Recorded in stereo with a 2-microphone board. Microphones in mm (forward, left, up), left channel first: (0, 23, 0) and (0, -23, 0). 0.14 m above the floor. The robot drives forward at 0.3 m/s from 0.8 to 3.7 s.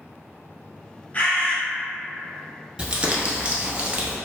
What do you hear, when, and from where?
1.1 s a bird: 35° left (ahead or behind), 1.9 m
2.8 s crumpling: 25° right (ahead or behind), 0.7 m; by 4.2 s 30° right (ahead or behind), 0.5 m